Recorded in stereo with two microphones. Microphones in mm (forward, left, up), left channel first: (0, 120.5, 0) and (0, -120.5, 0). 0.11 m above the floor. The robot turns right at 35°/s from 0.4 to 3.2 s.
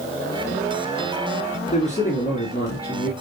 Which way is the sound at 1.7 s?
45° left.